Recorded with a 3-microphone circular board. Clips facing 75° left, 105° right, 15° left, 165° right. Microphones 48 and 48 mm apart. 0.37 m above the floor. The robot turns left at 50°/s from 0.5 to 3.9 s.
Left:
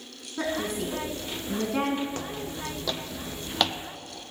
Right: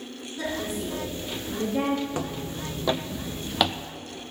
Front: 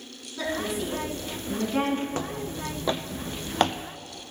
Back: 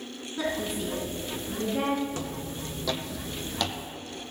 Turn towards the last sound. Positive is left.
turn(degrees=-25)